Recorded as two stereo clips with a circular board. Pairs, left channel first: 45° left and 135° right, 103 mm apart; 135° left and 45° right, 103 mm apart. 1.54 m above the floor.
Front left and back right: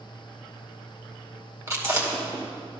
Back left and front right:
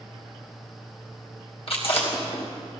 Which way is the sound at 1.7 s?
165° left.